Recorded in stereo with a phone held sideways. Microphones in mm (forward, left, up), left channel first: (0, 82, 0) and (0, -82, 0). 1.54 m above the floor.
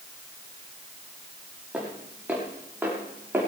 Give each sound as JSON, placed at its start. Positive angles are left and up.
{"t": 1.7, "sound": "footsteps", "side_deg": -10, "distance_m": 7.0}